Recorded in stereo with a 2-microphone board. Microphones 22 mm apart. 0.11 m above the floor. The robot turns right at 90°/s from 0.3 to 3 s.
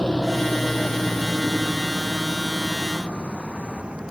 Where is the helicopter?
45° left (ahead or behind); by 4.1 s 65° right (ahead or behind).